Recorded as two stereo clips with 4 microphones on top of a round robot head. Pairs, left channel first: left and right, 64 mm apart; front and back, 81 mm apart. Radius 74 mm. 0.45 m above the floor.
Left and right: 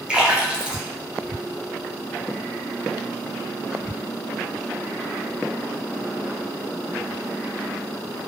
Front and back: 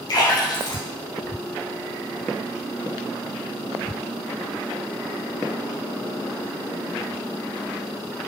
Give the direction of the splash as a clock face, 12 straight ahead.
1 o'clock.